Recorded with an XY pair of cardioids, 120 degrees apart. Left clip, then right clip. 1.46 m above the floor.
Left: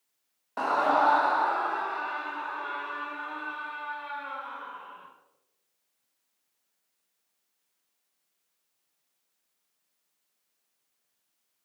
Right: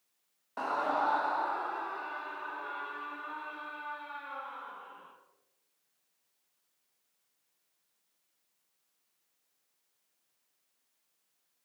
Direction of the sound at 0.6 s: 30° left.